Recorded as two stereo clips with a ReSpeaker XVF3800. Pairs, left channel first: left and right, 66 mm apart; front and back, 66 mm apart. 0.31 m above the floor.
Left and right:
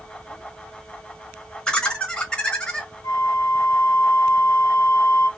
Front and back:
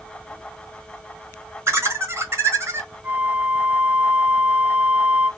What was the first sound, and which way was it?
Laughter, 160° left.